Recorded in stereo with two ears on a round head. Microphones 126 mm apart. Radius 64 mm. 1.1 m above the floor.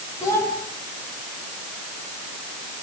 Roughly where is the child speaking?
Left.